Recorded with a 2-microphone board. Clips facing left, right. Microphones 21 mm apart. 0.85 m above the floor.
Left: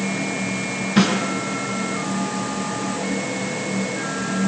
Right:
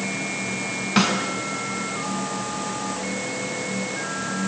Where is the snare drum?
45° right (ahead or behind), 6.5 m.